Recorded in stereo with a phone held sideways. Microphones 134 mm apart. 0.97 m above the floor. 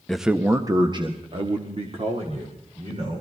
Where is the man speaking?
5° left (ahead or behind), 0.6 m; by 3.2 s 55° right (ahead or behind), 3 m.